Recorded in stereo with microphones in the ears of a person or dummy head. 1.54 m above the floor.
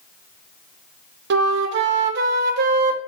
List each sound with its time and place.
1.3 s a flute: 60° right (ahead or behind), 0.5 m